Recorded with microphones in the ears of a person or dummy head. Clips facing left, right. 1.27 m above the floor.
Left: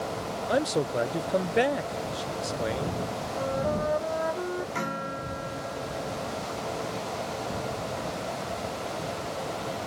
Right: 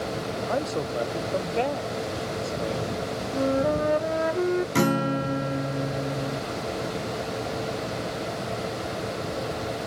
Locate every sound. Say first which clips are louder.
0.5 s a man speaking: left 3 dB; 15° left (ahead or behind)
3.3 s a flute: right 6 dB; 40° right (ahead or behind)
4.8 s a guitar: right 10 dB; 60° right (ahead or behind)